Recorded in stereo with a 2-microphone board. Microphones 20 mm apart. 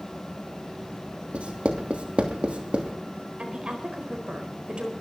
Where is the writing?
75° right (ahead or behind), 2.5 m.